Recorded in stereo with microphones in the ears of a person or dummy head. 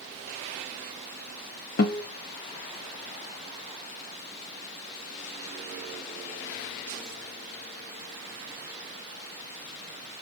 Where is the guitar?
50° left (ahead or behind), 0.6 m.